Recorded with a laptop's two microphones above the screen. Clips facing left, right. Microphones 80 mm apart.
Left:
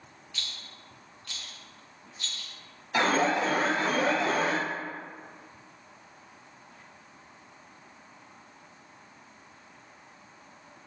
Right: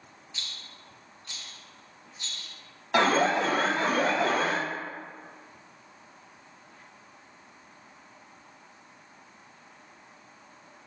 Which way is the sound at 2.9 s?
75° right (ahead or behind).